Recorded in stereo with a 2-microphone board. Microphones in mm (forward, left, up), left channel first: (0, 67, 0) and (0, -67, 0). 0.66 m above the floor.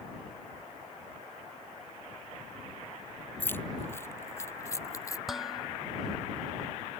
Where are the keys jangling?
15° left (ahead or behind); by 5.2 s 25° left (ahead or behind).